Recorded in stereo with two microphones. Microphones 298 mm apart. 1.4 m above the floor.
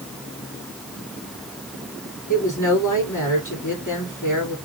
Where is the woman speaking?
85° left, 3 m.